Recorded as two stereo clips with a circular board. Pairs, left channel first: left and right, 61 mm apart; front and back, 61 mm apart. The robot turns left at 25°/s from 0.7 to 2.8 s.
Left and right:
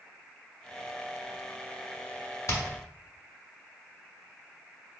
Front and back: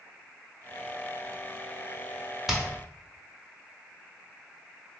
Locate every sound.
2.5 s hammering: 95° left, 0.8 m